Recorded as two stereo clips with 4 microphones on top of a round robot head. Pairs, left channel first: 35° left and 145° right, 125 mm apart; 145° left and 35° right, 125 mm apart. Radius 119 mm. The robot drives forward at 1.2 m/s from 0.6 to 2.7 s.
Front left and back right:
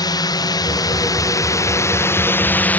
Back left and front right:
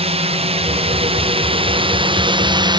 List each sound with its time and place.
0.0 s a drone: 15° right; by 2.8 s 30° right